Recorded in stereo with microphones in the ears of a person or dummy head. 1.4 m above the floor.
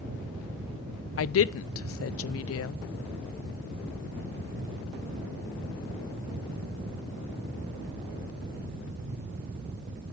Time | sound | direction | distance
1.2 | a woman speaking | 70° left (ahead or behind) | 0.5 m